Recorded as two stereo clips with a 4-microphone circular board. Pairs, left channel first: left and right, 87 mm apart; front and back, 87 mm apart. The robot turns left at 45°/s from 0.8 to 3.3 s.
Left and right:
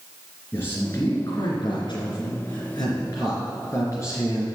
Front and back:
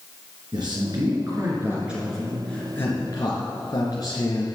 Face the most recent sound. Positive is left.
turn(degrees=40)